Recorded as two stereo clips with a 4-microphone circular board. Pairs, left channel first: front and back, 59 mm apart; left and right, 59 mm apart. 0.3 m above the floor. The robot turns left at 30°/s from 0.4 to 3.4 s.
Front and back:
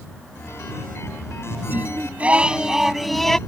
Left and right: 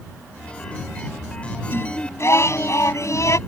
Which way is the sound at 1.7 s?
130° left.